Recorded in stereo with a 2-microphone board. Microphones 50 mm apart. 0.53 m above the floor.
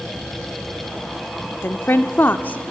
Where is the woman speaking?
50° left (ahead or behind), 0.9 m; by 2.7 s 25° left (ahead or behind), 0.9 m.